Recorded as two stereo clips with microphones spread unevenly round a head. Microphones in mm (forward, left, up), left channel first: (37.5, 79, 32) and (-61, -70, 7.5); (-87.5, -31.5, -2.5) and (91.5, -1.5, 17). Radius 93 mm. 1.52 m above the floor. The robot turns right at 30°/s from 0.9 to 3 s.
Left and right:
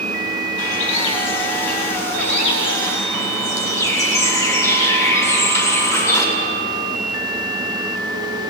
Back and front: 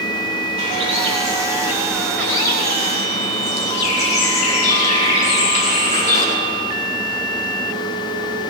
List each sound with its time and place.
0.6 s a bird: 65° left, 8 m; by 6.2 s 130° left, 8 m